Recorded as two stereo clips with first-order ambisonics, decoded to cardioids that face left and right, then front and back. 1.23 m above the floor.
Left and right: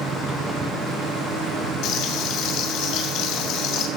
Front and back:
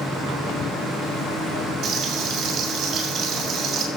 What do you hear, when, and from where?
1.8 s frying: 120° left, 2.5 m